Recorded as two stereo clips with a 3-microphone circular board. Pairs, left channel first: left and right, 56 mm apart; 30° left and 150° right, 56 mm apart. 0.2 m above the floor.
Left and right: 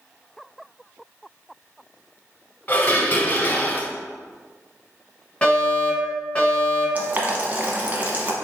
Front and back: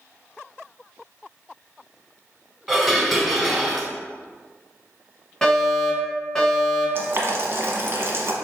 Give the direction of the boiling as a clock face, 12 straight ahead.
5 o'clock.